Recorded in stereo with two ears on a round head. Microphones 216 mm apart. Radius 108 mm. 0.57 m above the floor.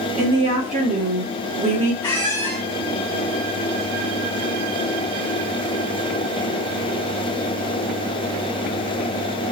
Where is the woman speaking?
30° right (ahead or behind), 1.3 m.